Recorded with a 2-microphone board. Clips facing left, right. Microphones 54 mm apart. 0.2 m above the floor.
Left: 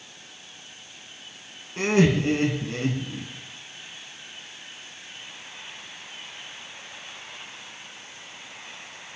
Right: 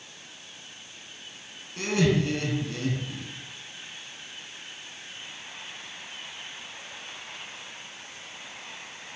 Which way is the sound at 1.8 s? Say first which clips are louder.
Left 4 dB; 35° left (ahead or behind).